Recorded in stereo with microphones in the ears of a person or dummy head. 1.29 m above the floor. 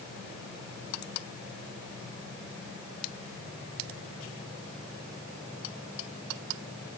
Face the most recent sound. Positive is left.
No sound to turn to.